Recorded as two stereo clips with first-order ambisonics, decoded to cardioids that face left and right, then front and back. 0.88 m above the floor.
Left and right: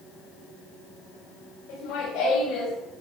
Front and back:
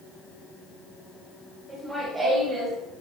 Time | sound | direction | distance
1.7 | laughter | 95° left | 3.5 m